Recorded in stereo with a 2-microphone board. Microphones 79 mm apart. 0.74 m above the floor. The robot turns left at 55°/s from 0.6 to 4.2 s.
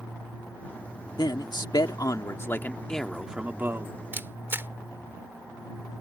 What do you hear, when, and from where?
1.2 s a man speaking: 105° left; by 3.9 s 45° right
4.1 s a camera shutter: 25° right (ahead or behind); by 4.7 s 30° right (ahead or behind)